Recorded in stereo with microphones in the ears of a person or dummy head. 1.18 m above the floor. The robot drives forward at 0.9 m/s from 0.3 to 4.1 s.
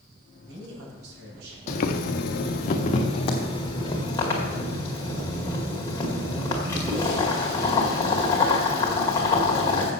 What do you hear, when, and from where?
0.3 s a man speaking: 75° right (ahead or behind), 5.5 m; by 1.6 s 90° right, 5.5 m
1.7 s boiling: 45° left (ahead or behind), 0.9 m; by 9.9 s 20° left (ahead or behind), 2 m